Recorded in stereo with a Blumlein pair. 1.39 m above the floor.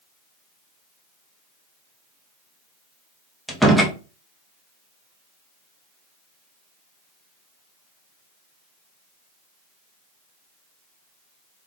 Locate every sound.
3.5 s a door slam: straight ahead, 0.9 m